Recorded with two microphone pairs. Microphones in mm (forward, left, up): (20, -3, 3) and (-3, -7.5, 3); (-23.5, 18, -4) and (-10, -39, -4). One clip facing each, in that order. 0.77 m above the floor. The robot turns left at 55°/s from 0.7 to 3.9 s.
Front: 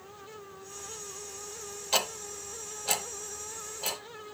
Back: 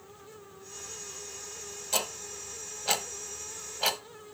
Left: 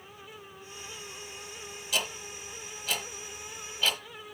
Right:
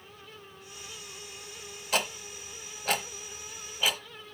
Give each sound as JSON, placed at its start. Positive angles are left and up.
{"t": 1.9, "sound": "ticking", "azimuth_deg": -45, "distance_m": 1.0}